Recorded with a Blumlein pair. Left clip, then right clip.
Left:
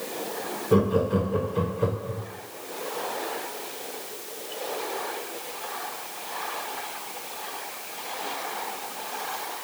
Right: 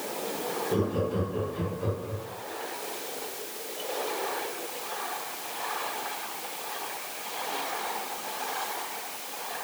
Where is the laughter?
60° left, 0.6 m.